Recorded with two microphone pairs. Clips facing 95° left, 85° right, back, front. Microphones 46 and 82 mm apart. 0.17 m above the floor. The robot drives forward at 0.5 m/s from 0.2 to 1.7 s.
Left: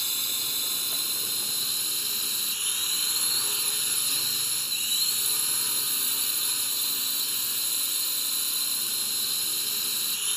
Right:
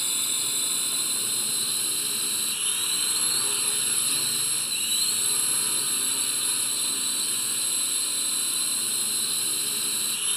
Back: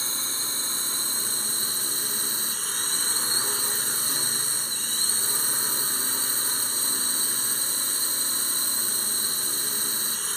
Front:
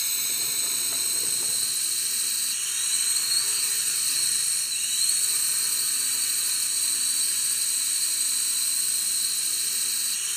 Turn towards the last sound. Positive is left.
turn(degrees=-165)